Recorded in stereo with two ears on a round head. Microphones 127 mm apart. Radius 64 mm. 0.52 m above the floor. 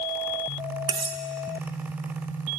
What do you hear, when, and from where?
0.9 s cutlery clinking: 30° right (ahead or behind), 0.5 m